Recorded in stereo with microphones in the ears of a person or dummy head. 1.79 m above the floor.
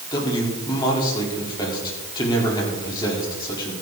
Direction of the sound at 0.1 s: 20° left (ahead or behind).